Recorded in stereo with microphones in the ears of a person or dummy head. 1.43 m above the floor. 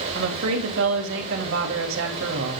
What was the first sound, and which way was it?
A woman speaking, 70° right (ahead or behind).